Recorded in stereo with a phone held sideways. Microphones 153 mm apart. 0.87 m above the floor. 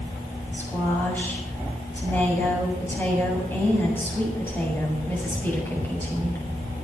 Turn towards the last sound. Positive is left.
turn(degrees=15)  # may be behind; listen again after turning